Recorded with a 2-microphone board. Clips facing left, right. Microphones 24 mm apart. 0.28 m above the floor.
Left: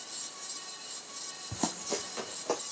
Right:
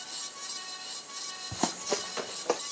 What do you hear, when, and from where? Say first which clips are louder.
1.5 s running footsteps: right 3 dB; 20° right (ahead or behind), 0.7 m; by 2.6 s 25° right (ahead or behind), 2 m